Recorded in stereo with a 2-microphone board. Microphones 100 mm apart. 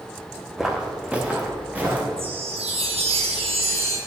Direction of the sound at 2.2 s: 85° right.